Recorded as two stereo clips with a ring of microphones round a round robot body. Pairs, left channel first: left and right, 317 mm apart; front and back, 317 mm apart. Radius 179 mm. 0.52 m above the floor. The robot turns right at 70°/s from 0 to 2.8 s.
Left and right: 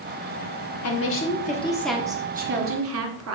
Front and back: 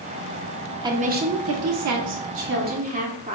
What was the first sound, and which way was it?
A woman speaking, 105° left.